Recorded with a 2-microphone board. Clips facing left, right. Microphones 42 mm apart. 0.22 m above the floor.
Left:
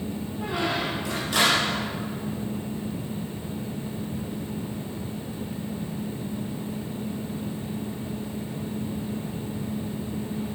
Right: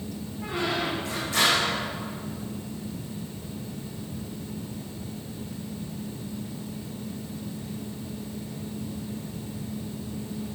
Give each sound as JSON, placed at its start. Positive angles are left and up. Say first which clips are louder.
{"t": 0.4, "sound": "a squeak", "louder": "left 1 dB", "side_deg": 70, "distance_m": 6.0}